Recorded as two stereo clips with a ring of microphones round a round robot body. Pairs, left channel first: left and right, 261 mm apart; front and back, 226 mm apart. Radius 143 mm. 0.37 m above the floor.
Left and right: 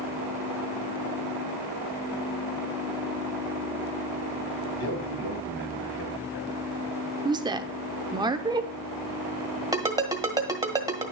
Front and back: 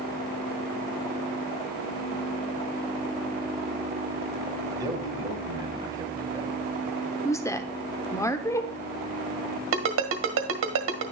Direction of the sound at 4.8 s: 105° left.